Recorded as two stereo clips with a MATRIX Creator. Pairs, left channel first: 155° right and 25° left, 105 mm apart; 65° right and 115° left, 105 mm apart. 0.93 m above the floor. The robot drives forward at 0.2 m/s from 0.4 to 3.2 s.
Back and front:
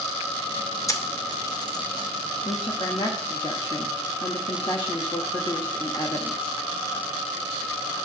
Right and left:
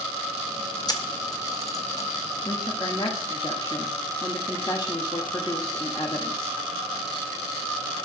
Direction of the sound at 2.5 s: 110° right.